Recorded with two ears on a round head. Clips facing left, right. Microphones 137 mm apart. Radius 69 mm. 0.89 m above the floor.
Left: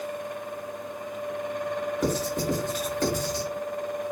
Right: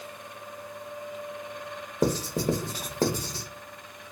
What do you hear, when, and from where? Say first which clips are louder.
2.0 s writing: right 4 dB; 30° right (ahead or behind), 0.8 m